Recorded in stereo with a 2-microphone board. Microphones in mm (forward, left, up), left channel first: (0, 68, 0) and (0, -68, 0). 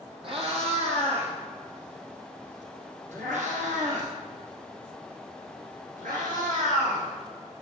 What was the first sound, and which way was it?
A cat meowing, 45° right (ahead or behind).